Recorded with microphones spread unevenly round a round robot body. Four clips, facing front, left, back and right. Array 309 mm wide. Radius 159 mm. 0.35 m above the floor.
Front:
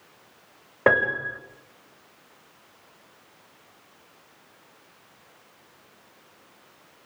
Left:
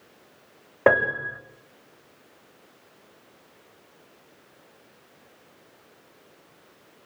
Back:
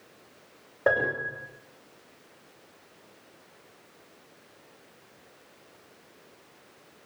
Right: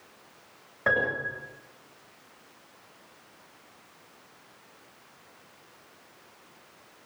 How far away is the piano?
About 7 m.